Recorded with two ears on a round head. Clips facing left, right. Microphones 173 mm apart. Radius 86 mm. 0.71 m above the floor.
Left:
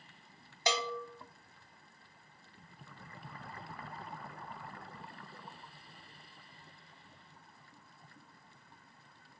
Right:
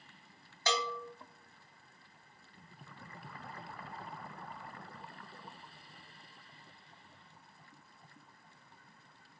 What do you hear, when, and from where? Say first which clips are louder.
0.7 s a bell: left 1 dB; 15° left (ahead or behind), 0.5 m